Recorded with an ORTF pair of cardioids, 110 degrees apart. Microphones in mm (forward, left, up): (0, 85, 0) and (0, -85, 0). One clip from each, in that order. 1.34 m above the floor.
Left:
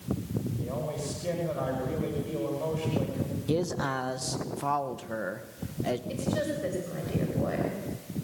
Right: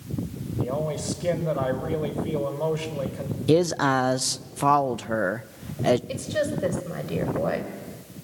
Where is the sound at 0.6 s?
45° right, 6.5 m.